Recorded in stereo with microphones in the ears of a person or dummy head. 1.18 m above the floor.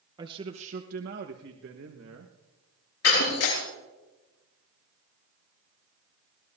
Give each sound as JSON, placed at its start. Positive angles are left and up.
{"t": 0.2, "sound": "a man speaking", "side_deg": -25, "distance_m": 1.2}
{"t": 3.0, "sound": "breaking glass", "side_deg": 80, "distance_m": 9.5}